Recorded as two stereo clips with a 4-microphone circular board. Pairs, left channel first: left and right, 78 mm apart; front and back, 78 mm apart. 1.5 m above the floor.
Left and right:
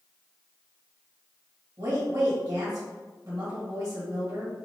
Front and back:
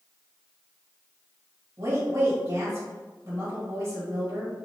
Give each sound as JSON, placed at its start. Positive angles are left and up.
{"t": 1.8, "sound": "a woman speaking", "azimuth_deg": -140, "distance_m": 1.9}